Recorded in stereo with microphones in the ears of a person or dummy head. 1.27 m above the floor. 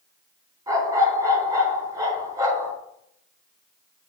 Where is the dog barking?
25° right (ahead or behind), 3 m.